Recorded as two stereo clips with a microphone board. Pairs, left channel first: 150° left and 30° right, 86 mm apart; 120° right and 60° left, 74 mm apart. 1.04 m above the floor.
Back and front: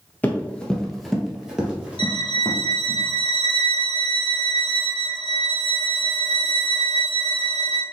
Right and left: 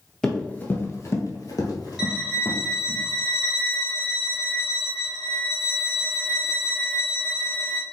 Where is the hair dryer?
I don't hear a hair dryer.